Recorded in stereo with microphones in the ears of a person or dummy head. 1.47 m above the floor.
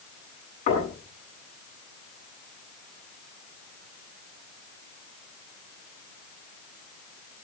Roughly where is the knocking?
Left.